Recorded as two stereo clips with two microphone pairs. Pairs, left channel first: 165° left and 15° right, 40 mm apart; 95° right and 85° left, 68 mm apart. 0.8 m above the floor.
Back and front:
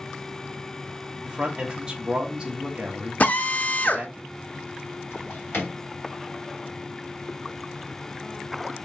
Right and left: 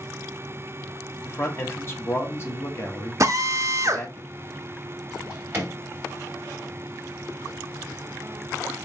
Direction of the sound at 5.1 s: 145° left.